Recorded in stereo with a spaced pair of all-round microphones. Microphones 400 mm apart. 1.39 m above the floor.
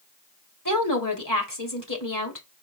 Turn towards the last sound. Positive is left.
turn(degrees=50)  # may be behind; listen again after turning